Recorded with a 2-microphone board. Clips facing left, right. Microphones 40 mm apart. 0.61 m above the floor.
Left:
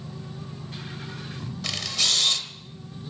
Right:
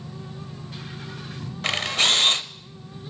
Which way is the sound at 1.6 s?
50° right (ahead or behind).